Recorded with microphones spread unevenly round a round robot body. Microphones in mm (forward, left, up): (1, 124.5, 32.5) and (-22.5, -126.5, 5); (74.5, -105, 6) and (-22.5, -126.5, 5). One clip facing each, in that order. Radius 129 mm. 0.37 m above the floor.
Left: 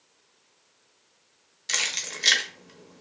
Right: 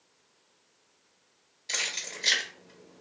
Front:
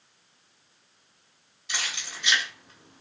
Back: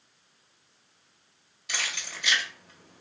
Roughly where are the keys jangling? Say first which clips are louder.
Left 2 dB, even; behind left.